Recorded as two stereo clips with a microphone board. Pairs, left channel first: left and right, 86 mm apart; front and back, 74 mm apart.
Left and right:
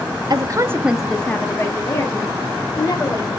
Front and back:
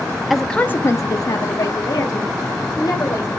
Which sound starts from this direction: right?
A woman speaking, at 0.3 s.